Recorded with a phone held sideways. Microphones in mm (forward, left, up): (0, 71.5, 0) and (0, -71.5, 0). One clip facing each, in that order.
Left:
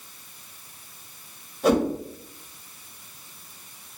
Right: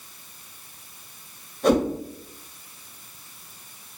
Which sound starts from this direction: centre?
A whoosh, at 1.6 s.